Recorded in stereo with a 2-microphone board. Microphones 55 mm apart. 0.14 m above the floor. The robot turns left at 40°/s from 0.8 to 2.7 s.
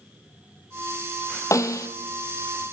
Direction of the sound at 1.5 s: 75° left (ahead or behind).